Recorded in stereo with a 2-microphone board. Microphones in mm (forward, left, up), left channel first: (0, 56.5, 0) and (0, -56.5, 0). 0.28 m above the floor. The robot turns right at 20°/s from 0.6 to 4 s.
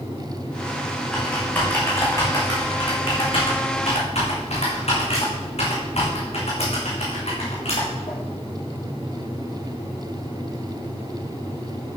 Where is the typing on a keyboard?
5° left (ahead or behind), 4 m; by 8.1 s 65° left (ahead or behind), 4 m.